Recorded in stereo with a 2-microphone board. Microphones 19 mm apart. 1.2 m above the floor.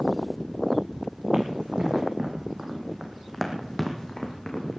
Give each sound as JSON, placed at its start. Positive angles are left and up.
{"t": 1.3, "sound": "running footsteps", "side_deg": -60, "distance_m": 3.5}